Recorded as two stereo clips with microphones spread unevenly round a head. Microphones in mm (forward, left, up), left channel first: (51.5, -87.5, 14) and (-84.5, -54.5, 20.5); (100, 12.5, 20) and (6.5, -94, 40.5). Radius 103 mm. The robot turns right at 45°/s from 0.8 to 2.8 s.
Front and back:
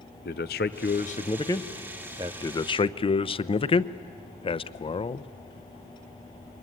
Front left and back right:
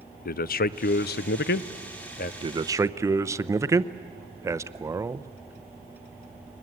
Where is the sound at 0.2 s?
30° left, 0.6 m; by 2.3 s 95° left, 0.6 m.